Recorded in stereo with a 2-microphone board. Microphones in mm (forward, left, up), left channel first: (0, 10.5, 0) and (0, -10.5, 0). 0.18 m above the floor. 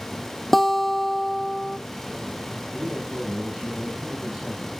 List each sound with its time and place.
0.5 s a guitar: 5° left (ahead or behind), 1.0 m
2.7 s a man speaking: 75° right (ahead or behind), 5.5 m